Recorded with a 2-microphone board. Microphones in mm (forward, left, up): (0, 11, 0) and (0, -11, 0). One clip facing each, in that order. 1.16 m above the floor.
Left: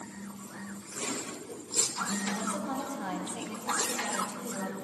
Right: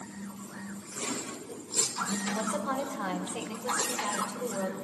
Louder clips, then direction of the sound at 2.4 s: Right 3 dB; 65° right (ahead or behind).